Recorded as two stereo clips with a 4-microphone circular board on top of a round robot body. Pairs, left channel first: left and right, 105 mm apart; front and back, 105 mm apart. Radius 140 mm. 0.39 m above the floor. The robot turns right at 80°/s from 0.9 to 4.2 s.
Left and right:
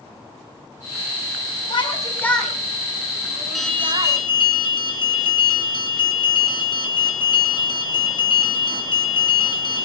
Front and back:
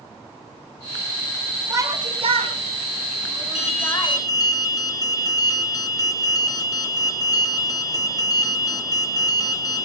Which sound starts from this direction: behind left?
A shout, at 1.7 s.